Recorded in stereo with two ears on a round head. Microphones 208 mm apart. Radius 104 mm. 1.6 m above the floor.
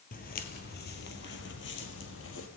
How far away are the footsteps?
About 3 m.